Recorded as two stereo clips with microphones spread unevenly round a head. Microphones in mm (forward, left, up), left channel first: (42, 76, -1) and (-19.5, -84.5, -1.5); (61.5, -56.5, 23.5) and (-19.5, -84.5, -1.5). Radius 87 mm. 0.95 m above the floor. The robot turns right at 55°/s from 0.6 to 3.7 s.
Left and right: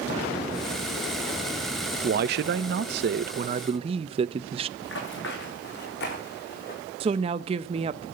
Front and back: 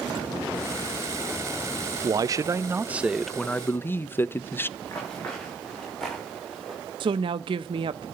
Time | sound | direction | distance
2.0 | a man speaking | 145° right | 0.5 m
4.8 | running footsteps | 95° left | 5 m
7.0 | a woman speaking | 170° right | 0.5 m